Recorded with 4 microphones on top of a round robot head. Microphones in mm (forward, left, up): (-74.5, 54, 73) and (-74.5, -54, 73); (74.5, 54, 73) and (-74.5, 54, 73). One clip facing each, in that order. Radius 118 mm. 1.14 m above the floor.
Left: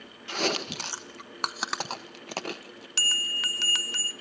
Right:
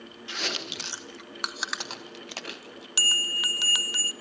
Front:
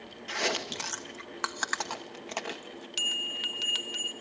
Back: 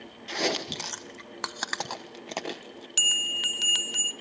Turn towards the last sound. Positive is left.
turn(degrees=-165)